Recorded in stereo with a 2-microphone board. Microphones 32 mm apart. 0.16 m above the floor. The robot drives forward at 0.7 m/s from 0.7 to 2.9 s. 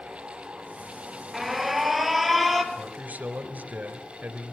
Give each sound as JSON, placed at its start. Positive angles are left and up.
{"t": 1.3, "sound": "an alarm", "side_deg": -5, "distance_m": 1.8}
{"t": 2.7, "sound": "a man speaking", "side_deg": -55, "distance_m": 3.0}